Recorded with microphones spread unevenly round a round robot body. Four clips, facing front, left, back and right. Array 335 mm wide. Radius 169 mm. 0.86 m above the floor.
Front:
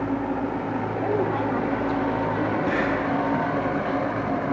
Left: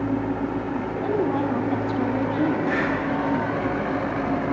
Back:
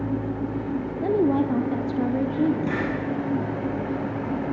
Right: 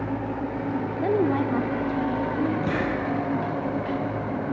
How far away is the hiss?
About 3.5 m.